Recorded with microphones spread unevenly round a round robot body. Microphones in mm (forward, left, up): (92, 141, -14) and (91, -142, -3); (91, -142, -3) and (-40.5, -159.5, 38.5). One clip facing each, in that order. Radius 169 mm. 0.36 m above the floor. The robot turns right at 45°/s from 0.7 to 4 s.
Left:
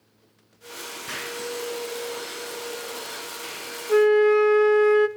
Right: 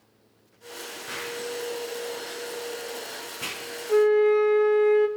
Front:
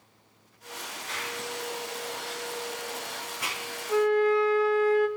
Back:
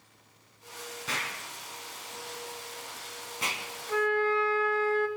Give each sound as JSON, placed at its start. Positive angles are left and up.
{"t": 1.1, "sound": "an explosion", "azimuth_deg": 155, "distance_m": 3.0}
{"t": 3.9, "sound": "a flute", "azimuth_deg": 40, "distance_m": 0.5}